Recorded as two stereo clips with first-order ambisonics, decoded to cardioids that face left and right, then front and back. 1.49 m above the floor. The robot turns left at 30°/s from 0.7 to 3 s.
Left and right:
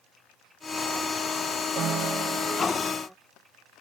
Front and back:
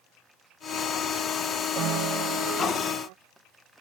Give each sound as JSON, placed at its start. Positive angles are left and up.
{"t": 1.8, "sound": "a piano", "azimuth_deg": -140}